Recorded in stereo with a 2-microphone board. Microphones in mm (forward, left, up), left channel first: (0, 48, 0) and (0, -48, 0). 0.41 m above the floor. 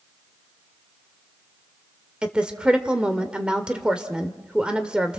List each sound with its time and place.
2.2 s a woman speaking: 10° right (ahead or behind), 1.5 m